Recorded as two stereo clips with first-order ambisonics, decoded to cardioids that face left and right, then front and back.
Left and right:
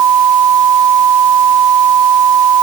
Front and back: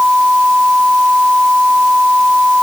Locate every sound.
Only background noise.